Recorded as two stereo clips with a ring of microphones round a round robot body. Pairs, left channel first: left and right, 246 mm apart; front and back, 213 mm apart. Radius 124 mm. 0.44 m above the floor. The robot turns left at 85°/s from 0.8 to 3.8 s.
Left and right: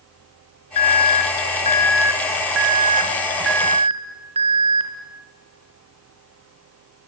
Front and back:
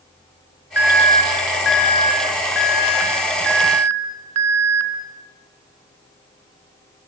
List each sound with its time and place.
0.8 s an alarm: 100° left, 3 m; by 4.9 s 155° right, 3 m